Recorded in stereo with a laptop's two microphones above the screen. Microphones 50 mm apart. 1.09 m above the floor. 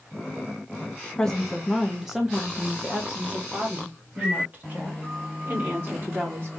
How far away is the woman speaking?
About 1.0 m.